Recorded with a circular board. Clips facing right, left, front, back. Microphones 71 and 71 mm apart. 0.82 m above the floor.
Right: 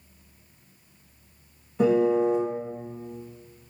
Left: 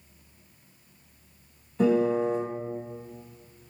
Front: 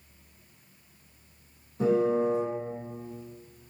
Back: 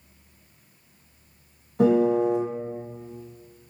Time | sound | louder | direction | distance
1.8 | a piano | right 2 dB, back 5 dB | 170° right | 0.9 m